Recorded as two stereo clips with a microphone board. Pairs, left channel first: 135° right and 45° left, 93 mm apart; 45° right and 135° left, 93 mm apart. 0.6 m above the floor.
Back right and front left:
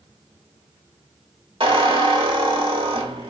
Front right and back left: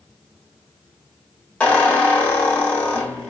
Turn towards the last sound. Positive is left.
turn(degrees=30)